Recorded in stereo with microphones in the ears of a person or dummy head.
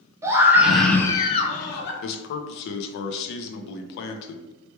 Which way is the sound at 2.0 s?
60° left (ahead or behind).